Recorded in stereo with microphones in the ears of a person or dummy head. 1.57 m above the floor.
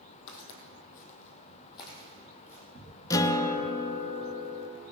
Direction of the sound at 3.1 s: 20° left (ahead or behind).